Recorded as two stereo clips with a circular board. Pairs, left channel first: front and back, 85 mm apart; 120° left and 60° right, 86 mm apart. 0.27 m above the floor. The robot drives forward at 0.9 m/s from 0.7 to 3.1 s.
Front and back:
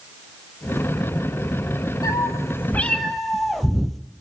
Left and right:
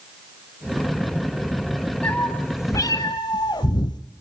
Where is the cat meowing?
45° left, 1.4 m; by 4.0 s 90° left, 1.0 m.